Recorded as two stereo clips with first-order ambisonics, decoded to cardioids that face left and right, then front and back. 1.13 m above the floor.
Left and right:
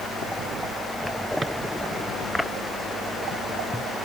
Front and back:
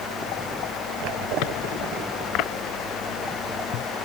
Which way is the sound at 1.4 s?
15° right.